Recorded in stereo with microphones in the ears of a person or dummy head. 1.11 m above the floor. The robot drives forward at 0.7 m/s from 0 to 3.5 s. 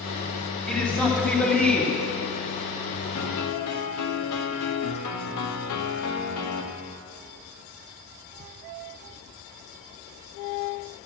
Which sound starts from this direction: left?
A piano, at 3.1 s.